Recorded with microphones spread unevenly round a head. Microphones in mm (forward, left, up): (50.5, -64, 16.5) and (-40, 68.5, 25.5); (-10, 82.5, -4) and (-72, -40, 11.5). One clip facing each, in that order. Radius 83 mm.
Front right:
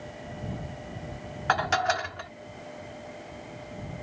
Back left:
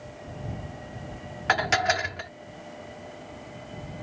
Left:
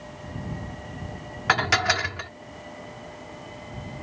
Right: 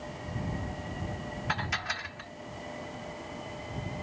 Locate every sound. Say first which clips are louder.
1.5 s dishes clattering: back left 1 dB, left 15 dB; 55° left